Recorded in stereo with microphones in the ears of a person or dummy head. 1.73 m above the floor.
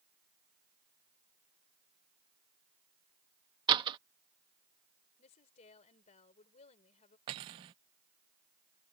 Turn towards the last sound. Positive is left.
turn(degrees=-25)  # may be behind; listen again after turning